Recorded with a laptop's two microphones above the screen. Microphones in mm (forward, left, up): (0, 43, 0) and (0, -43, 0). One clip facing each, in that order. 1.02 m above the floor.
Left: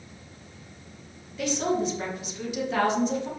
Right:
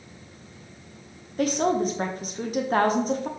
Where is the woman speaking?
40° right (ahead or behind), 0.6 m.